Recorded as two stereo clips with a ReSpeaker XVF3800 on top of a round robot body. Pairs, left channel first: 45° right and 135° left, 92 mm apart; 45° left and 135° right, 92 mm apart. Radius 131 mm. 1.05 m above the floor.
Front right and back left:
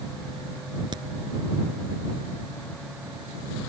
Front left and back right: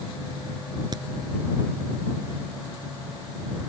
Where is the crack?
Straight behind.